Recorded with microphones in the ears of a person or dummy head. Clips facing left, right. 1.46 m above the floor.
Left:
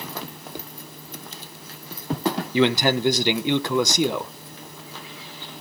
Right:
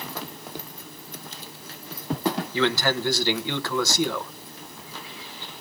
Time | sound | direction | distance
2.5 | a man speaking | 25° left (ahead or behind) | 1.0 m